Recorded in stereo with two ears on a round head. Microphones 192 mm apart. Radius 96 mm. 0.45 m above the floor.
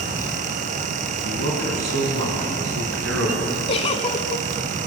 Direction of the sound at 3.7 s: 30° left (ahead or behind).